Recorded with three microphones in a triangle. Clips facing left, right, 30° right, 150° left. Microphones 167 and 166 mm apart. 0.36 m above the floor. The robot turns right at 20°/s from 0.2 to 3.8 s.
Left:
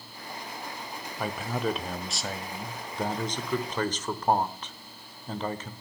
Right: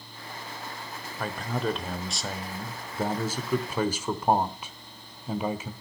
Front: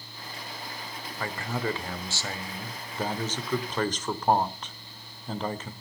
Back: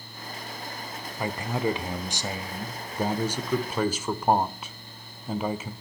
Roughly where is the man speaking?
Behind.